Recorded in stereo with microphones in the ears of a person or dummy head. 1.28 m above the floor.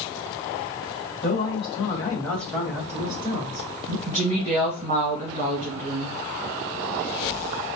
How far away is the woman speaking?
About 1.6 m.